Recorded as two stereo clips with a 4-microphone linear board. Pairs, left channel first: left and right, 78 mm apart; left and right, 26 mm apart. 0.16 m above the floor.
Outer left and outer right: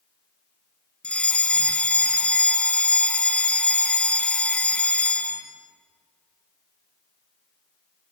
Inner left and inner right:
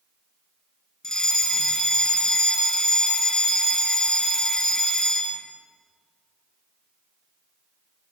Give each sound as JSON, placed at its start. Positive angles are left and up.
{"t": 1.0, "sound": "a fire alarm", "side_deg": 15, "distance_m": 2.5}